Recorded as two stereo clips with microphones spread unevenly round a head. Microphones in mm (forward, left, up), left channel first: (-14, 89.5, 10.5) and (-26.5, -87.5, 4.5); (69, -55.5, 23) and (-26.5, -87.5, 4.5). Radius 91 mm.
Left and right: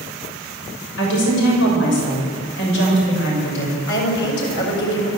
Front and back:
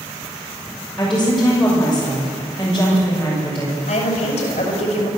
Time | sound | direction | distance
1.0 | a woman speaking | 105° left | 6.5 m
3.9 | a woman speaking | 50° left | 6 m